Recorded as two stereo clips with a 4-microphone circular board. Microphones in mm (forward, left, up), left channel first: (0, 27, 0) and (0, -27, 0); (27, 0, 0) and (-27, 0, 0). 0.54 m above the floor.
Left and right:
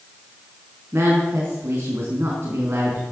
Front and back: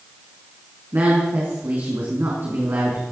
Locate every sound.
0.9 s a woman speaking: 135° right, 4.5 m